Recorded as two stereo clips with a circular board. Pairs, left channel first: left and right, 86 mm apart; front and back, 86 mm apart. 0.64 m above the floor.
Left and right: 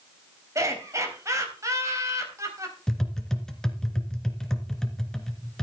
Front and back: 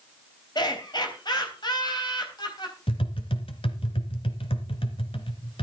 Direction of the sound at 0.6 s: 35° right.